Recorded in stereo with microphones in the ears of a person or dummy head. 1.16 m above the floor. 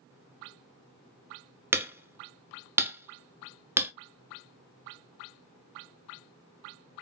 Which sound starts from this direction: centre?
Hammering, at 1.7 s.